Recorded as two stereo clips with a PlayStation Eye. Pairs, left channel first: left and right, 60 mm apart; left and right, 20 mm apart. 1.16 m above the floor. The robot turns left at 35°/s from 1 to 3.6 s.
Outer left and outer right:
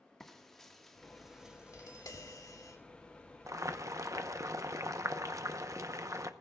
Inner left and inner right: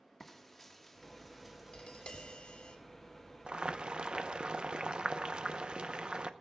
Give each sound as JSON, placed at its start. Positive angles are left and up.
{"t": 0.2, "sound": "frying", "azimuth_deg": 5, "distance_m": 1.5}
{"t": 1.7, "sound": "tapping", "azimuth_deg": 110, "distance_m": 1.9}
{"t": 3.5, "sound": "boiling", "side_deg": -65, "distance_m": 0.8}